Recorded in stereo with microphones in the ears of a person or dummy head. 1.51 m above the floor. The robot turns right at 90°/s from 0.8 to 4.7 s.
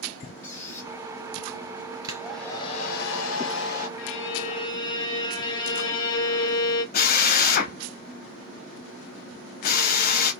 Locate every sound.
0.4 s a squeak: 10° left (ahead or behind), 1.1 m; by 0.9 s 20° left (ahead or behind), 1.1 m
2.0 s a hair dryer: 30° right, 0.8 m; by 3.9 s 135° left, 0.8 m
4.0 s a violin: 90° left, 0.5 m; by 6.8 s 155° left, 0.5 m
6.9 s a drill: 50° left (ahead or behind), 0.5 m